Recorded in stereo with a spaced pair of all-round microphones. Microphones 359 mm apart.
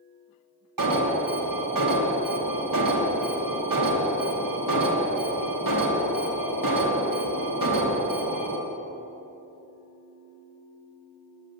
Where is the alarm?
65° right (ahead or behind), 1.4 m.